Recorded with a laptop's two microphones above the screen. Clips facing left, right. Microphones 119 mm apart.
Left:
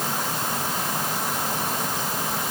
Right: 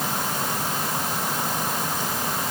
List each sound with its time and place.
Only background noise.